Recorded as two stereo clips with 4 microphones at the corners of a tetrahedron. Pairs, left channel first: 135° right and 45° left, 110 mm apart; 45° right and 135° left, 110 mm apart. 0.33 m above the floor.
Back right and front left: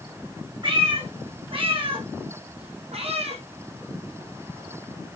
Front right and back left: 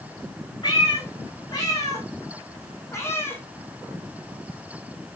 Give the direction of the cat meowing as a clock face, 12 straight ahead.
12 o'clock.